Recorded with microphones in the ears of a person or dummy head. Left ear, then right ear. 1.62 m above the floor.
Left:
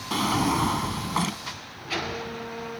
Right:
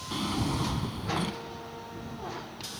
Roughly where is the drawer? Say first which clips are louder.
Left 8 dB; left.